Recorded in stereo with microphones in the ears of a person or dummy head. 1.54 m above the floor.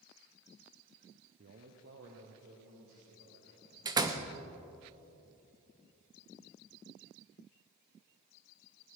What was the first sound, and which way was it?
A man speaking, 40° right (ahead or behind).